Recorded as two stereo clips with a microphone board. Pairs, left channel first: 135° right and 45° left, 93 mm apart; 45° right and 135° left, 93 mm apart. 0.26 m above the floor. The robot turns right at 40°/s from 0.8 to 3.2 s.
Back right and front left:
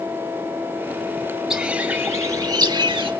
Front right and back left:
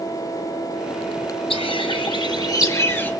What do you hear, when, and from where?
1.5 s a bird: 40° right, 2.5 m; by 3.1 s 25° left, 2.5 m